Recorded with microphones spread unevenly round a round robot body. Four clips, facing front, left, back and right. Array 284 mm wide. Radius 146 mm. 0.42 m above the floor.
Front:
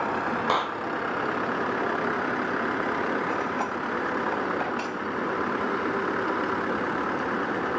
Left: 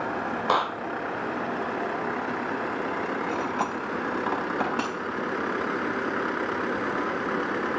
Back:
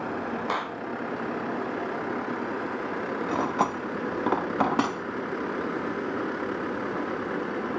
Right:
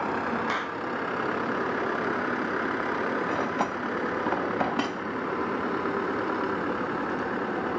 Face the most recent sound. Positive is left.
turn(degrees=-170)